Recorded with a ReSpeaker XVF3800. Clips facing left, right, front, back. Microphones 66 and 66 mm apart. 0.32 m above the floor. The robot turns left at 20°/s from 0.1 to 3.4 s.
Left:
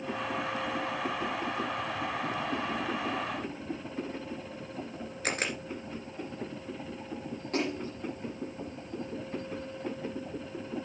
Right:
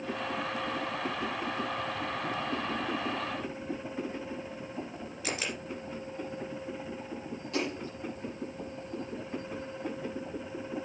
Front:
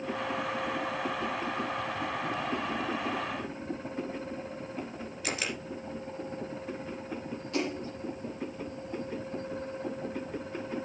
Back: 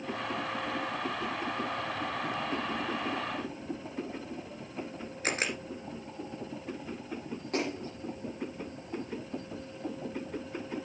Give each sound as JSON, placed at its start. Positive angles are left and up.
{"t": 5.2, "sound": "a camera shutter", "azimuth_deg": 130, "distance_m": 2.0}
{"t": 7.5, "sound": "a splash", "azimuth_deg": 135, "distance_m": 8.0}